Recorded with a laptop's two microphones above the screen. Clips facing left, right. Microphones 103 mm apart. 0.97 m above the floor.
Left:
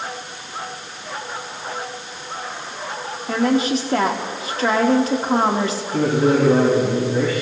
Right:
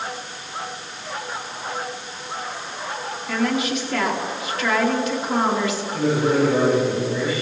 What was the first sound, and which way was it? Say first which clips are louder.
A woman speaking: left 4 dB; 35° left (ahead or behind).